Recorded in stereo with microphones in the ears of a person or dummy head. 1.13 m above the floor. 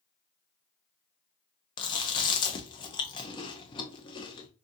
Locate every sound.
1.8 s chewing: 25° left (ahead or behind), 0.5 m